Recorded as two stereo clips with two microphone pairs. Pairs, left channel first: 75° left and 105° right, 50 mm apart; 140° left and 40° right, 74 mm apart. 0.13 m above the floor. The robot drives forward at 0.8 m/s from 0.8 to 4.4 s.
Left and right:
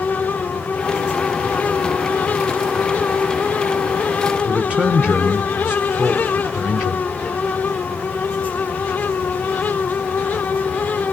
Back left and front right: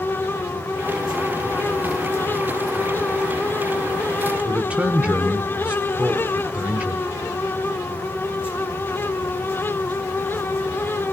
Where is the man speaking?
70° right, 1.5 m.